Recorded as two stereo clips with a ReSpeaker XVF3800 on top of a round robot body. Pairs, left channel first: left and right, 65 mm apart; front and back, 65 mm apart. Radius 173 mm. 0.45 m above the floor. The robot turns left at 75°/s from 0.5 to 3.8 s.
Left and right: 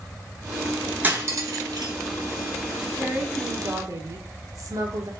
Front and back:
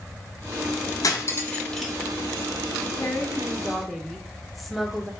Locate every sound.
1.0 s cutlery clinking: 25° right, 1.1 m; by 1.9 s 95° right, 1.1 m
2.8 s a woman speaking: 15° right, 1.4 m; by 5.1 s 90° right, 1.4 m